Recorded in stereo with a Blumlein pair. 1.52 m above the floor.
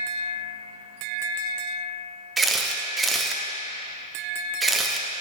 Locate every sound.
2.4 s a camera shutter: 10° right, 0.8 m